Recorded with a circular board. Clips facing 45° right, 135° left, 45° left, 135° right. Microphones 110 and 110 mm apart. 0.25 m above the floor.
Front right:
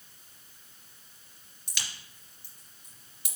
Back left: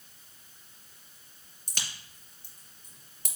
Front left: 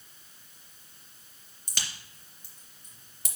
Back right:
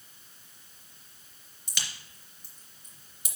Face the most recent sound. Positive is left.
turn(degrees=90)